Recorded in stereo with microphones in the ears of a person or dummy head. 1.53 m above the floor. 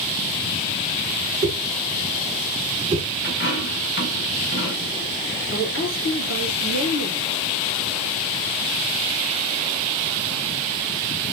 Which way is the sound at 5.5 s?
75° left (ahead or behind).